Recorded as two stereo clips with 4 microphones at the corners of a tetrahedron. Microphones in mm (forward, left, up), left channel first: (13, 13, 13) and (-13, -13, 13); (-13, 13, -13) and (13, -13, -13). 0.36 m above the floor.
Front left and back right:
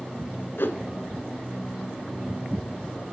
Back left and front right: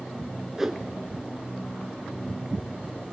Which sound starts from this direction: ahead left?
A whoosh, at 0.6 s.